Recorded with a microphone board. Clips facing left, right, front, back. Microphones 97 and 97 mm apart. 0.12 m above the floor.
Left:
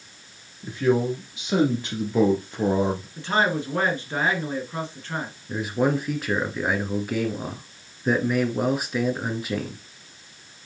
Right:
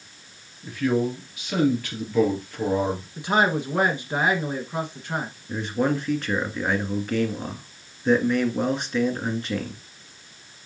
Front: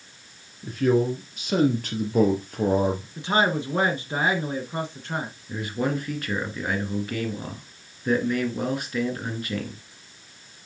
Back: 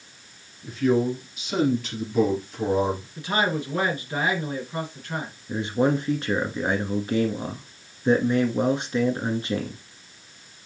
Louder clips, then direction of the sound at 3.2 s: Right 2 dB, front 3 dB; 30° right.